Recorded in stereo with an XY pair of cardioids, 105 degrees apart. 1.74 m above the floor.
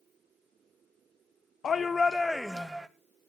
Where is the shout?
50° left, 0.7 m; by 2.9 s 15° right, 0.8 m.